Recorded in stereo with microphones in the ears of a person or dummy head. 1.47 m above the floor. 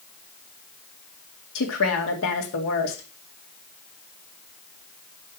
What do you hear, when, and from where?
1.6 s a woman speaking: 75° left (ahead or behind), 2 m